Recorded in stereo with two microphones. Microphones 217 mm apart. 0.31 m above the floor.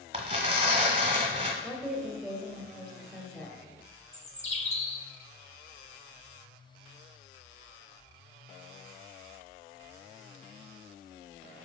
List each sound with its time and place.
0.1 s tearing paper: 25° right (ahead or behind), 1.2 m
1.6 s a woman speaking: 5° left (ahead or behind), 1.5 m
4.1 s a bird: 30° left (ahead or behind), 0.9 m